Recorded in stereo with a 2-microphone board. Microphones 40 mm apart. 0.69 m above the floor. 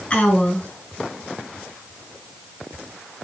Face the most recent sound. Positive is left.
turn(degrees=30)  # may be behind; listen again after turning